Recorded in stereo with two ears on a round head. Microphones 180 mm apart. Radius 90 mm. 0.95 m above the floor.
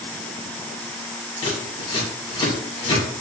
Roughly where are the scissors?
Left.